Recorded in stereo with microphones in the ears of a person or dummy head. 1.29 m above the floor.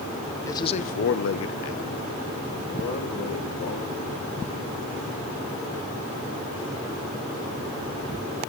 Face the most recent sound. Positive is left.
turn(degrees=50)  # may be behind; listen again after turning